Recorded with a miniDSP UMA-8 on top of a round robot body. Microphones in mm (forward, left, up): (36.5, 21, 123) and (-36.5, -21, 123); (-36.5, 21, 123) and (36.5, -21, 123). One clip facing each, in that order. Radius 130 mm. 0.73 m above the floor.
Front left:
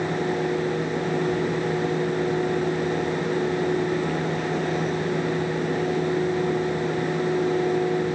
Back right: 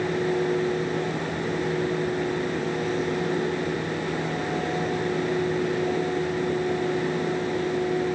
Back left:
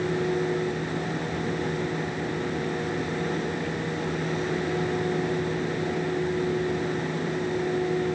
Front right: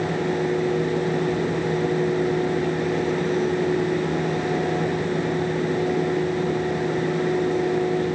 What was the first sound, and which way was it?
Only background noise.